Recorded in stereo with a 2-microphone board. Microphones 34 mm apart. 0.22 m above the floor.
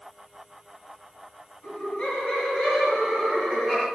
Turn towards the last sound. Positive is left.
turn(degrees=20)  # may be behind; listen again after turning